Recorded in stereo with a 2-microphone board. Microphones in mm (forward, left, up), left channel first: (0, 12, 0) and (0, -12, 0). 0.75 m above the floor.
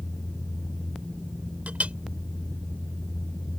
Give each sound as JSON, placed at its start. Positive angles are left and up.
{"t": 1.7, "sound": "a clink", "side_deg": -80}